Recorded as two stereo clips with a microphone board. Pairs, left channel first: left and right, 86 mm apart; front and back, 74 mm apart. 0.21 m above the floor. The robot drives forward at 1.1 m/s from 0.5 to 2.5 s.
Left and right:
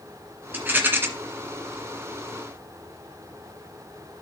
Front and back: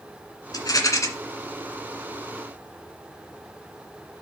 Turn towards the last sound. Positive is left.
turn(degrees=-130)